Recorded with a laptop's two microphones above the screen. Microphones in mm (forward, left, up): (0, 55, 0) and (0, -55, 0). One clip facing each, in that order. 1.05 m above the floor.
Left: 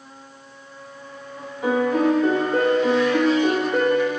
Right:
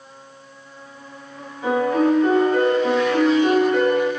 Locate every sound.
1.6 s a piano: 15° left (ahead or behind), 1.3 m